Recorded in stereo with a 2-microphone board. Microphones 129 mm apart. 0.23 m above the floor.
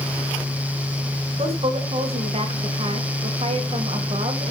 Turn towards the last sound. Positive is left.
turn(degrees=-50)  # may be behind; listen again after turning